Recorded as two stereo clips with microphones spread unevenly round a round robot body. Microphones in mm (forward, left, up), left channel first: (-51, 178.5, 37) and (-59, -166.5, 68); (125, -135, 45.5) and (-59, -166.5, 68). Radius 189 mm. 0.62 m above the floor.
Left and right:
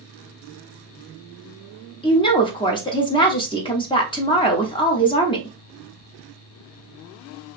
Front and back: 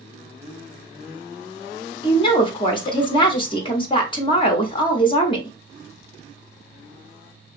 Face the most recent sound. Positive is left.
turn(degrees=30)